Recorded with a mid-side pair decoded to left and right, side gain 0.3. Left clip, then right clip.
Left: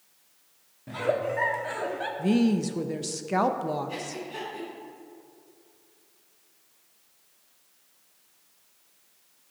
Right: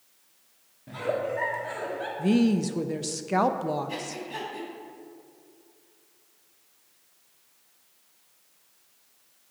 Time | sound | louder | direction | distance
0.9 | a giggle | left 2 dB | 40° left | 1.3 m
2.2 | a woman speaking | right 1 dB | 10° right | 0.8 m
3.9 | breathing | right 1 dB | 50° right | 3.5 m